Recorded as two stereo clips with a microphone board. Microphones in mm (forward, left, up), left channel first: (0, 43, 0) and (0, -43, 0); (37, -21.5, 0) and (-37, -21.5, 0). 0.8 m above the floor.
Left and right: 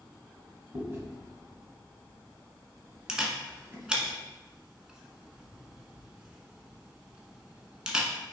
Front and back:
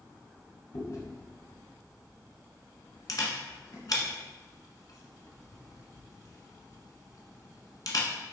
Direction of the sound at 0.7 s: 30° right.